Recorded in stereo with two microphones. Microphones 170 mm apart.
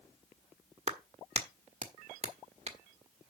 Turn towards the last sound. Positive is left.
turn(degrees=-40)  # may be behind; listen again after turning